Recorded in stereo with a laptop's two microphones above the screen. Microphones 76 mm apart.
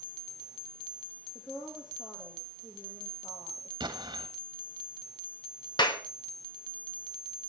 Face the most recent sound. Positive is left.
turn(degrees=75)  # may be behind; listen again after turning